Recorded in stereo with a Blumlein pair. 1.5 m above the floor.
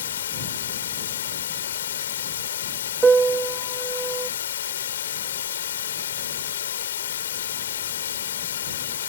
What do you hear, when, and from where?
0.0 s running water: 65° left
3.0 s a piano: 15° right